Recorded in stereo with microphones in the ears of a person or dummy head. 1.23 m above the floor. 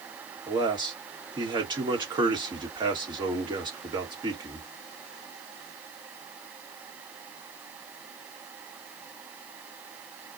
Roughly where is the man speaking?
Right.